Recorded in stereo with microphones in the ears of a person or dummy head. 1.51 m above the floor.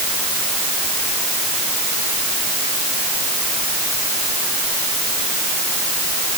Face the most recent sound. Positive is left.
No sound to turn to.